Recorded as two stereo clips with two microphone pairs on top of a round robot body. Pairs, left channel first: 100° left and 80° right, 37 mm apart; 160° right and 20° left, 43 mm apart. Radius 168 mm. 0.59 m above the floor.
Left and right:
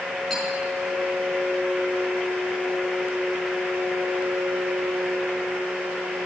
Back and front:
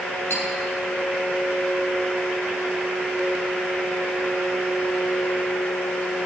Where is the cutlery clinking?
170° right, 4.5 m.